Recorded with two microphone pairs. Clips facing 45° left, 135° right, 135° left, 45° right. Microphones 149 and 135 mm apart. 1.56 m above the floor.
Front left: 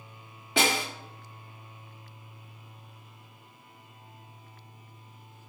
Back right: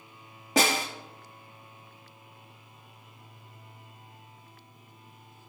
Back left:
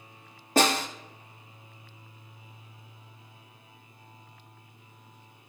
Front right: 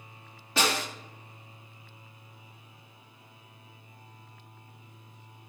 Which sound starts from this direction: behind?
A snare drum, at 0.6 s.